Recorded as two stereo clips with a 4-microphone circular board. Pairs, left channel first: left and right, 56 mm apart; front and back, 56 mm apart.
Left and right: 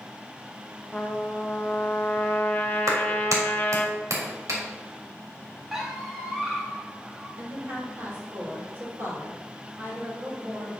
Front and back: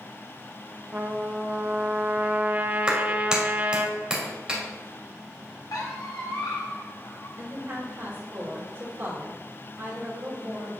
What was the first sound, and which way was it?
A trumpet, 140° left.